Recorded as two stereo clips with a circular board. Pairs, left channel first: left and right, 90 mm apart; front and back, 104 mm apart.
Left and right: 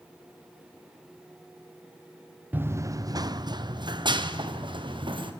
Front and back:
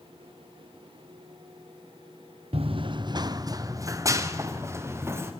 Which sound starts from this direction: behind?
Running footsteps, at 2.5 s.